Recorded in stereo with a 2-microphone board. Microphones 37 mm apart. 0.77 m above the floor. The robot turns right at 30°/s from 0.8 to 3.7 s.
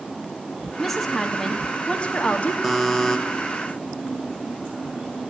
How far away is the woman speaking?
About 1.4 m.